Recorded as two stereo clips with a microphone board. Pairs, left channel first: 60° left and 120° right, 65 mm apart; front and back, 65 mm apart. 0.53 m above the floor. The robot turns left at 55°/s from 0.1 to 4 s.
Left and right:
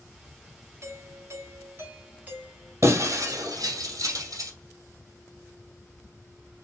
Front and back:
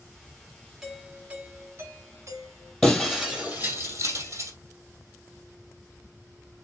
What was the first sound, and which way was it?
A doorbell, 95° right.